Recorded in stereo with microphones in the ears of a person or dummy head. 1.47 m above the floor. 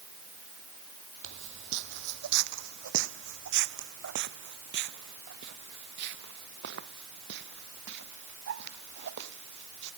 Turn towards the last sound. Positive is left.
turn(degrees=-55)  # may be behind; listen again after turning